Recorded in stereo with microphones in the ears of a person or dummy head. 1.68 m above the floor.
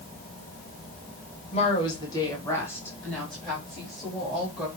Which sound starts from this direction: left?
A woman speaking, at 1.5 s.